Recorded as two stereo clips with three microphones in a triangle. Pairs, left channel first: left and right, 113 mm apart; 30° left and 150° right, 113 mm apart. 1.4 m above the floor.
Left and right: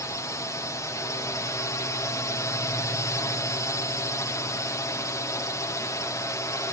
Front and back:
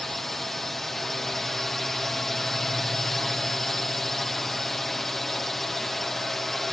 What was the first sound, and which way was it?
A drone, 115° left.